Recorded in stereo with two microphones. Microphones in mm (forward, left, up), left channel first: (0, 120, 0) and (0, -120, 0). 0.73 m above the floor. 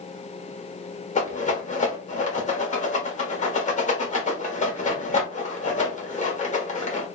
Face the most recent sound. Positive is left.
turn(degrees=30)  # may be behind; listen again after turning